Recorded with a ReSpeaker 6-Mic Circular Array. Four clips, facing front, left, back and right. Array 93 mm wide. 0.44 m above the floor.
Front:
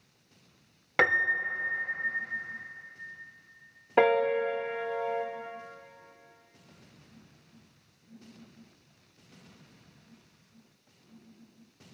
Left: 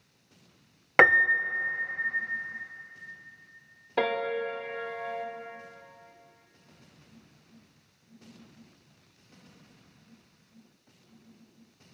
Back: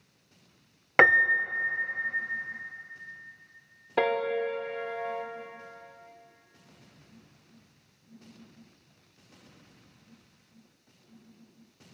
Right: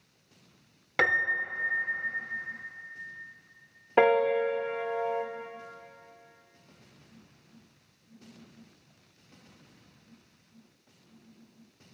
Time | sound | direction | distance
1.0 | a piano | 125° left | 0.8 m
4.0 | a piano | 60° right | 1.3 m